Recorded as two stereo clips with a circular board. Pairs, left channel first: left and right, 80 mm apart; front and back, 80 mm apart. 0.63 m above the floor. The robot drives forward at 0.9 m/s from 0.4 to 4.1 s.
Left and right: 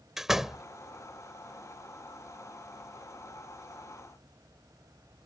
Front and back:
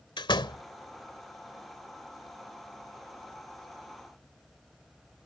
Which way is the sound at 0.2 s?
5° right.